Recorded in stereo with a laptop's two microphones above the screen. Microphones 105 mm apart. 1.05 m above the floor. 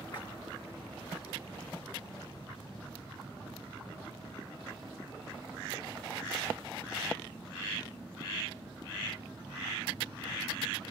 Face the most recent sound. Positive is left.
turn(degrees=45)  # may be behind; listen again after turning